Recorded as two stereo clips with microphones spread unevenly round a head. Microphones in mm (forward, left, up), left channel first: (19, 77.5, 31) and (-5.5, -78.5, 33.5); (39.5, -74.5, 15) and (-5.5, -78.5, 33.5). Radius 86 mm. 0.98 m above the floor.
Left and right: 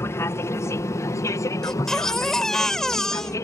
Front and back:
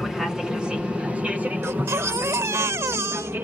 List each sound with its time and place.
0.0 s an aircraft: 50° left; by 3.5 s 145° left
1.6 s a baby crying: 170° left